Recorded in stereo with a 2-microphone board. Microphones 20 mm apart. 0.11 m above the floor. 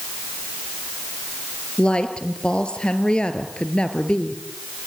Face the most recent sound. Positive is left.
turn(degrees=50)  # may be behind; listen again after turning